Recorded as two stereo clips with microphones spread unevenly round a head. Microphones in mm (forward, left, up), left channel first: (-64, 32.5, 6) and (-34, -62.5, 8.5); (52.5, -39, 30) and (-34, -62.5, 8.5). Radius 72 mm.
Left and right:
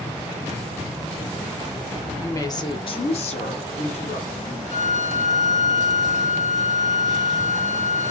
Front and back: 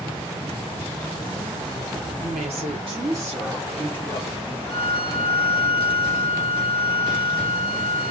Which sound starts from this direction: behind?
A woman speaking, at 2.2 s.